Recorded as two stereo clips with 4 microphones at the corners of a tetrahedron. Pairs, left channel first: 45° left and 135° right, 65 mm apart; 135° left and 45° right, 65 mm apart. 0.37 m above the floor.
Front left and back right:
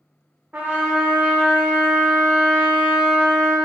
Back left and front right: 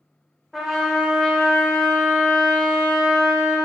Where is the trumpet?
130° right, 0.7 m.